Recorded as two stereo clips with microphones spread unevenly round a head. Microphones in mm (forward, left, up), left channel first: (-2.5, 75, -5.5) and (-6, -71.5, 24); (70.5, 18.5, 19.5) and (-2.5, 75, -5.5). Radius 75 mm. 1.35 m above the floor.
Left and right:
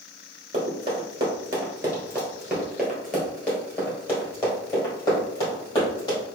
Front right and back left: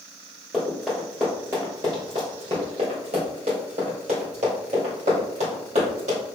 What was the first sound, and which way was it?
Running footsteps, 110° right.